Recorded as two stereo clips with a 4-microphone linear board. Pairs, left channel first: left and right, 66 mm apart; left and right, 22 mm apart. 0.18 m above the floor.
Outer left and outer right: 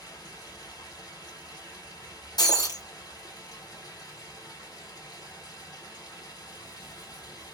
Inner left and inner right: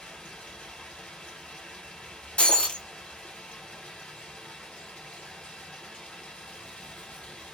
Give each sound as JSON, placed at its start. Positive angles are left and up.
{"t": 0.0, "sound": "running water", "side_deg": 75, "distance_m": 1.5}
{"t": 2.4, "sound": "breaking glass", "side_deg": 85, "distance_m": 0.8}